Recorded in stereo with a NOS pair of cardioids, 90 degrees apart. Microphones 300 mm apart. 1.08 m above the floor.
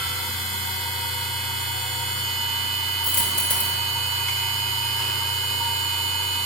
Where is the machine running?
Straight ahead, 1.4 m.